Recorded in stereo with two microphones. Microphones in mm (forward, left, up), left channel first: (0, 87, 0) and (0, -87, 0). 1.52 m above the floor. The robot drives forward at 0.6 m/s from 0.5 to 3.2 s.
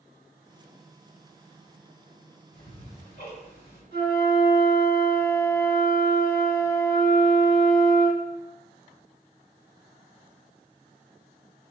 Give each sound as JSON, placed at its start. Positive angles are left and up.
{"t": 2.5, "sound": "ticking", "side_deg": 85, "distance_m": 2.5}
{"t": 3.9, "sound": "a flute", "side_deg": 65, "distance_m": 3.0}